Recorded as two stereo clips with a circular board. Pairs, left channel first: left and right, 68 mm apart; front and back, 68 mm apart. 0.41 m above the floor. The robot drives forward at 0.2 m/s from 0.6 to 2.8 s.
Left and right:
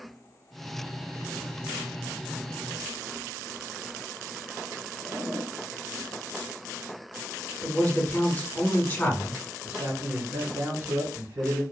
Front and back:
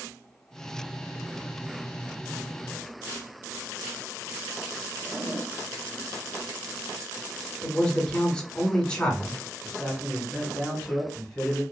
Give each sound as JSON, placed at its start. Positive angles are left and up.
{"t": 5.0, "sound": "a zipper", "azimuth_deg": 150, "distance_m": 1.4}
{"t": 7.6, "sound": "a man speaking", "azimuth_deg": 60, "distance_m": 0.9}
{"t": 9.6, "sound": "a man speaking", "azimuth_deg": -85, "distance_m": 1.5}